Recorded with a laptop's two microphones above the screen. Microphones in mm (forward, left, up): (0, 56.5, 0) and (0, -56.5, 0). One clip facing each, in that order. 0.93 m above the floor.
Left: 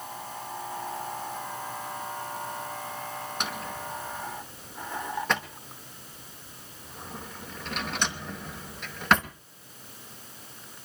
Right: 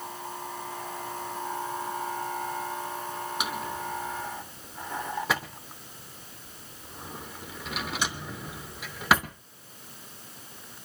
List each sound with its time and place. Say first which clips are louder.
3.4 s a drawer: right 2 dB; 5° right (ahead or behind), 0.9 m